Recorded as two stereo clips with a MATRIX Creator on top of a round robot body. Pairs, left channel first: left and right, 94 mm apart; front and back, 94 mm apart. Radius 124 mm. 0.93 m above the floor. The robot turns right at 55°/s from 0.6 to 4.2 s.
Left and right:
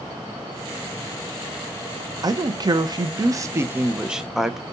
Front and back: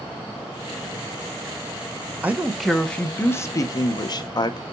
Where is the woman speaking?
115° right, 0.8 m; by 4.6 s 5° right, 0.8 m.